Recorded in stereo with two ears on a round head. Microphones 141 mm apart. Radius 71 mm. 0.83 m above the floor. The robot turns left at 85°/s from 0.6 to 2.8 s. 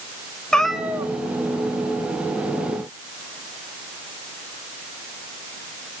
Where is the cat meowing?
5° left, 0.8 m; by 1.1 s 40° right, 0.8 m.